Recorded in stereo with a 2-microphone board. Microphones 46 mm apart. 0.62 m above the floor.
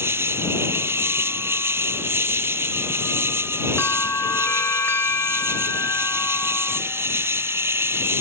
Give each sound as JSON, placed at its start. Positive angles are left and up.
{"t": 0.0, "sound": "an insect", "side_deg": -75}
{"t": 3.8, "sound": "a bell", "side_deg": 70}